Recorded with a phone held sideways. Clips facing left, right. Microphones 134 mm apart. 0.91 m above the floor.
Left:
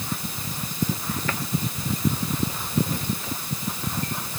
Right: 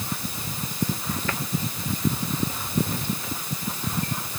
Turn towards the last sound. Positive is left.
No sound to turn to.